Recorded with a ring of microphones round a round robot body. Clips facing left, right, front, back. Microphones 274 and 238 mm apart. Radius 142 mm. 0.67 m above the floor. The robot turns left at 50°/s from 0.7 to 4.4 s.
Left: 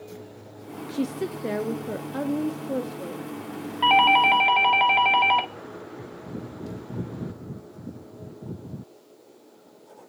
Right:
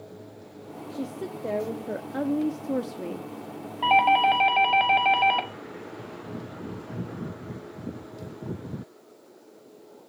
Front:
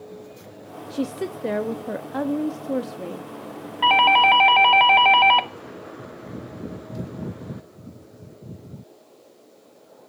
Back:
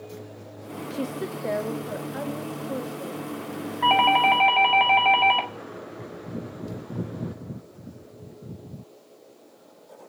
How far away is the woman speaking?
About 0.9 m.